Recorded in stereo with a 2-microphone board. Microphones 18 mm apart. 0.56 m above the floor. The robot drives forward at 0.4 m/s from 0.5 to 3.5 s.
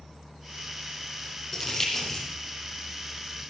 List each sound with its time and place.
1.5 s crumpling: 10° left (ahead or behind), 6.5 m